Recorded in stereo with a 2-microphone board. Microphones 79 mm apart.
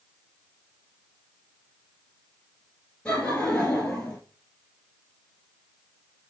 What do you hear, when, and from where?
3.0 s laughter: 15° left (ahead or behind), 3 m